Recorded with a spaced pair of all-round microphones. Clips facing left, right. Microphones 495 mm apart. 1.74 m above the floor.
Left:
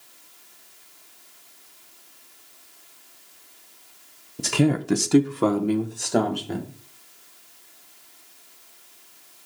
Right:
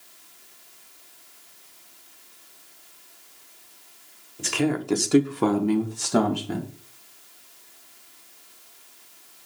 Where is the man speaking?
60° left (ahead or behind), 1.1 m; by 6.7 s 30° right (ahead or behind), 2.5 m.